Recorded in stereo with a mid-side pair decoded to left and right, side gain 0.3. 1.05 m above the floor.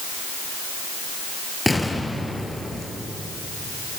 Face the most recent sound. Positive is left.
turn(degrees=15)